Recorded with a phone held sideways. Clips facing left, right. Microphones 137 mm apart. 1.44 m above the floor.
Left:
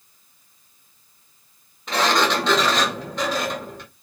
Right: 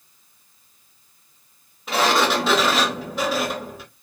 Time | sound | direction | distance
1.9 | a sliding door | 5° right (ahead or behind) | 0.6 m